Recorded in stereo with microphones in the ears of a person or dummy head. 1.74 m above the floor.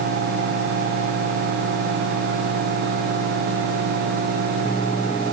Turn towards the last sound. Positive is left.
No sound to turn to.